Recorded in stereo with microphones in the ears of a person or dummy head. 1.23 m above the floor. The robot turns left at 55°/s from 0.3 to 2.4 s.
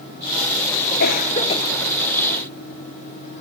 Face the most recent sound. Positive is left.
turn(degrees=-20)